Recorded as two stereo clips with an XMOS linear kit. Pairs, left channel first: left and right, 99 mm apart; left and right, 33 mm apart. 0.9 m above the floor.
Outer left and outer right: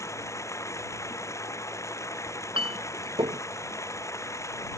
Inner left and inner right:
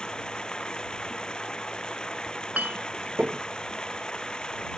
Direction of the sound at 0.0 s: 30° left (ahead or behind).